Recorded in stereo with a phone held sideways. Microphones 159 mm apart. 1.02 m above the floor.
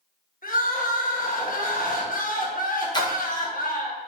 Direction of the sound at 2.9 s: 25° left (ahead or behind).